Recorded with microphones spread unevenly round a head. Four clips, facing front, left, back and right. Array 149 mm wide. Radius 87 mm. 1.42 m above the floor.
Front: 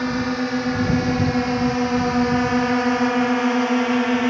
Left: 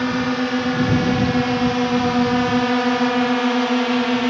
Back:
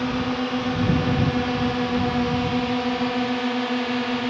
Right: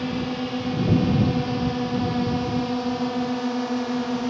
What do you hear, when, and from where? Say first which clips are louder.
0.0 s a drone: left 6 dB, front 2 dB; 75° left; by 4.3 s 60° left